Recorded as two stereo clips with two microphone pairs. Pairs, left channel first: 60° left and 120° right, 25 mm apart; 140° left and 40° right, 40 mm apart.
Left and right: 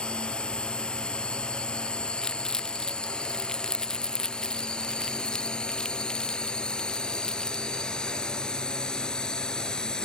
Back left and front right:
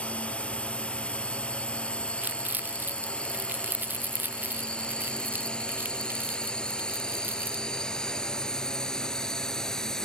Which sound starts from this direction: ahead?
Crumpling, at 2.2 s.